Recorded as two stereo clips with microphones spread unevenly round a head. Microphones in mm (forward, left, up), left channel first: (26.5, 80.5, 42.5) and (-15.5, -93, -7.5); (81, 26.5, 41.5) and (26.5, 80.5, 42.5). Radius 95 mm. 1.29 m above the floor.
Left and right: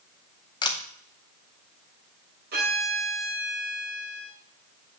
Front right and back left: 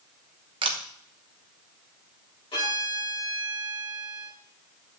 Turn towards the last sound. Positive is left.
turn(degrees=-65)